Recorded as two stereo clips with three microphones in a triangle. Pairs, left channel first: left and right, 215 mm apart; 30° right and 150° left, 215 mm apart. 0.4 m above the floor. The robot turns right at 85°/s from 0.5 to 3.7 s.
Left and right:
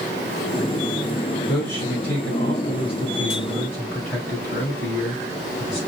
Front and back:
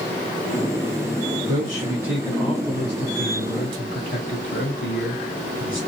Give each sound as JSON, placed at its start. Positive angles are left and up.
{"t": 1.5, "sound": "a man speaking", "azimuth_deg": 180, "distance_m": 1.7}